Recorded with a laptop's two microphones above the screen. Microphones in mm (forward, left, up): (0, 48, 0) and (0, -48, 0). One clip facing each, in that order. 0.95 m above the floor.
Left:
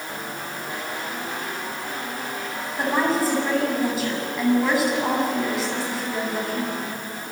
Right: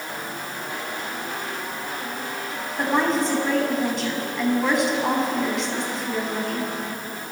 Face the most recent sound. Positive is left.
turn(degrees=5)  # may be behind; listen again after turning